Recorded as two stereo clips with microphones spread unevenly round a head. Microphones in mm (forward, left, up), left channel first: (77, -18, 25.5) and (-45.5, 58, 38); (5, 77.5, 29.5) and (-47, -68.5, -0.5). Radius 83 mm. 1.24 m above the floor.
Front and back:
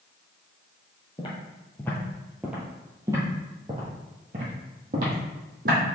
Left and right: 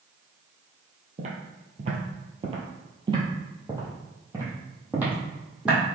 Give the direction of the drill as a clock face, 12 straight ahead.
No drill in this recording.